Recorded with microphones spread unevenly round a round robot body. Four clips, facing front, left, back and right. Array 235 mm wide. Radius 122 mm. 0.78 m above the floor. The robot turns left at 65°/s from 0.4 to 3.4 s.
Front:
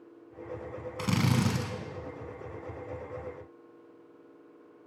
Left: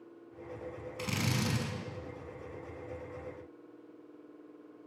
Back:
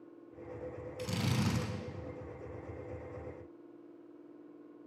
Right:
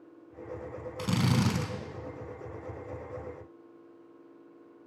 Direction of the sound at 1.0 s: 15° right.